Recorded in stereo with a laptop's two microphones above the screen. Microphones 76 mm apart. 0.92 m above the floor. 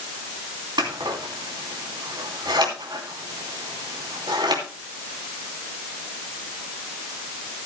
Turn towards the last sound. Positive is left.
turn(degrees=-85)